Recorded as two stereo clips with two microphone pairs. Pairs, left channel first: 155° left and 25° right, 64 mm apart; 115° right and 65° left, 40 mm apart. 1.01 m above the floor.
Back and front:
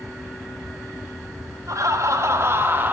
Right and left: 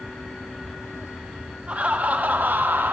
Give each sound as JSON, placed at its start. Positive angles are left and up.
{"t": 1.7, "sound": "laughter", "azimuth_deg": 10, "distance_m": 1.4}